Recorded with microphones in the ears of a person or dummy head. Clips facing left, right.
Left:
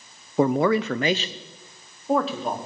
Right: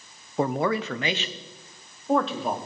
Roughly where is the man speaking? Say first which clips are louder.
Left 5 dB; left.